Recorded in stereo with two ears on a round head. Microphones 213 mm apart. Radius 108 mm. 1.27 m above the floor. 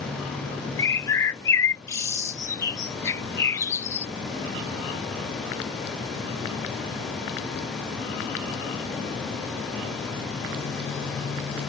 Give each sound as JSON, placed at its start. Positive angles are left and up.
{"t": 0.8, "sound": "a bird", "side_deg": 10}